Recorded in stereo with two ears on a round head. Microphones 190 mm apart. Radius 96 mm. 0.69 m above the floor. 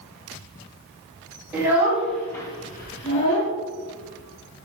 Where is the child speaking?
10° right (ahead or behind), 2 m; by 3.5 s 65° left (ahead or behind), 1.2 m.